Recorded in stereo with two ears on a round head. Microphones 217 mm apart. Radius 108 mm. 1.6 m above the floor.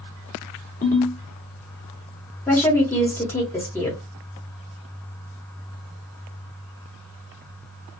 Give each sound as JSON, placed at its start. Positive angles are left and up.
{"t": 0.8, "sound": "a ringtone", "side_deg": 35, "distance_m": 1.6}
{"t": 2.5, "sound": "a woman speaking", "side_deg": 10, "distance_m": 1.1}